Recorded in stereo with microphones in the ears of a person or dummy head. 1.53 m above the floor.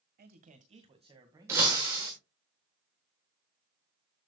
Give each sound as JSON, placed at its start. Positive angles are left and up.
{"t": 0.2, "sound": "a man speaking", "side_deg": -45, "distance_m": 1.5}
{"t": 1.5, "sound": "breaking glass", "side_deg": -10, "distance_m": 1.2}